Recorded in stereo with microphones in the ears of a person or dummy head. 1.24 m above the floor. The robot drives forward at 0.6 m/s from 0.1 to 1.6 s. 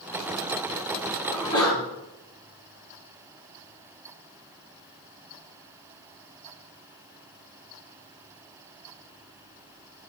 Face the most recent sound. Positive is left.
turn(degrees=15)  # may be behind; listen again after turning